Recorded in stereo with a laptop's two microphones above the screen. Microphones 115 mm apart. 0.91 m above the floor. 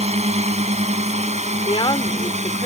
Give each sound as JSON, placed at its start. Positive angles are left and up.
{"t": 0.0, "sound": "a drone", "side_deg": -70}
{"t": 1.6, "sound": "a woman speaking", "side_deg": 50}